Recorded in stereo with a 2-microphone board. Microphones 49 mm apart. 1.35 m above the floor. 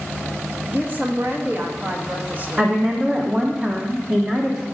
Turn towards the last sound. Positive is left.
turn(degrees=-15)  # may be behind; listen again after turning